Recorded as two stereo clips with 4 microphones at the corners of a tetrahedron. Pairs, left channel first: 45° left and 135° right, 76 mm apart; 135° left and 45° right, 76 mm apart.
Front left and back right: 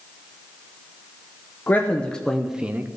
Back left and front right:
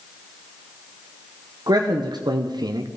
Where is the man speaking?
20° right, 0.8 m; by 2.9 s 75° right, 0.6 m.